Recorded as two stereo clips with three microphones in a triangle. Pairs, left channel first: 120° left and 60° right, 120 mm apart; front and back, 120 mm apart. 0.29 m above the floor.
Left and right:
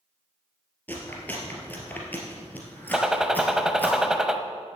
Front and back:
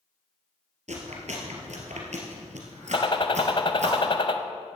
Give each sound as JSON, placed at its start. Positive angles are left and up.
{"t": 0.9, "sound": "chewing", "azimuth_deg": -165, "distance_m": 2.5}
{"t": 2.9, "sound": "a gunshot", "azimuth_deg": 25, "distance_m": 0.7}